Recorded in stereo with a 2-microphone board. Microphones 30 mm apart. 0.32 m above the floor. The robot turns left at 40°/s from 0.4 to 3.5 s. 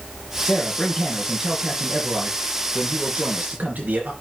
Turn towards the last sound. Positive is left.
turn(degrees=-95)